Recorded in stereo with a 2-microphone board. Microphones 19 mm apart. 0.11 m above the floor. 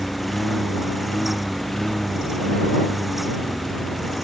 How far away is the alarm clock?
No alarm clock in this recording.